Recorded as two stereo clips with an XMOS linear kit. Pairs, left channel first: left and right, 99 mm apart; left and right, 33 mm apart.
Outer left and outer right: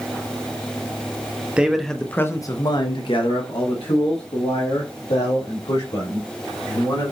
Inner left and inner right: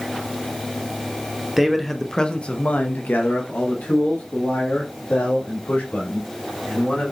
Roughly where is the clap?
No clap in this recording.